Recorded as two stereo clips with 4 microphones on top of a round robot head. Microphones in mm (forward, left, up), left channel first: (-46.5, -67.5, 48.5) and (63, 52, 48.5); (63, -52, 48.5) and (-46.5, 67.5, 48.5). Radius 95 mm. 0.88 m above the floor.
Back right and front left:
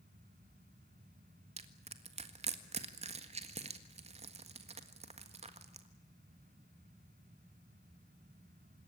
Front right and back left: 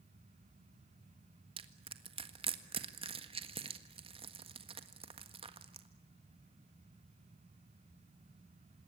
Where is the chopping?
No chopping in this recording.